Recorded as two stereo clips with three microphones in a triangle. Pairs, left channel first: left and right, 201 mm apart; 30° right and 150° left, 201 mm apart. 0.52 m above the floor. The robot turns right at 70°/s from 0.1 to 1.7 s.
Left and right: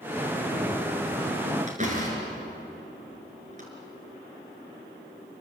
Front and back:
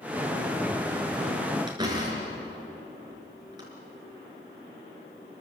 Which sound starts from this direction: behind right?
A door slam, at 1.7 s.